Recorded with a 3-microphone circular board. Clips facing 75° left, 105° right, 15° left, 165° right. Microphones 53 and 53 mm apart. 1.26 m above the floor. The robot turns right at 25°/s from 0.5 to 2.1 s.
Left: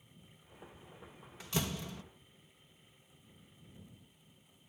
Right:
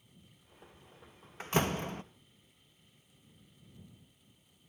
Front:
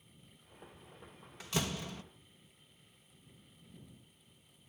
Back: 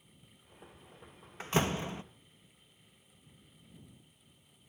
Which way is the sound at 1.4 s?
130° right.